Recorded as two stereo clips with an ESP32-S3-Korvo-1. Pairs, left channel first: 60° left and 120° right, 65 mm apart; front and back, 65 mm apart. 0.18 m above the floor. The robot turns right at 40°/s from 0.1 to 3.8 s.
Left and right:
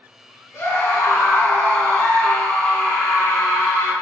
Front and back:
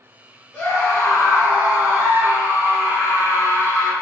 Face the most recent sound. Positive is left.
turn(degrees=175)